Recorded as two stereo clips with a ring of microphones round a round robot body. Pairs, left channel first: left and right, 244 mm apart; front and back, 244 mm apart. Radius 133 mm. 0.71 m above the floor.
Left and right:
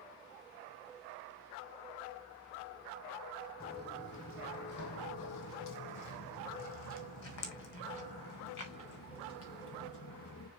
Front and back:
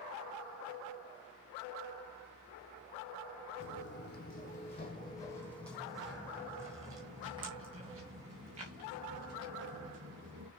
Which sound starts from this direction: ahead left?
Footsteps, at 3.6 s.